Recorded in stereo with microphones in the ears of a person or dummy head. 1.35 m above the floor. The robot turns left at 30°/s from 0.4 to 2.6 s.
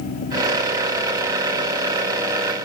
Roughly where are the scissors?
I don't hear scissors.